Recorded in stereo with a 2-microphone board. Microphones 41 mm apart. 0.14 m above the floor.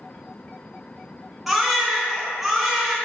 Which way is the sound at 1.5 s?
5° right (ahead or behind).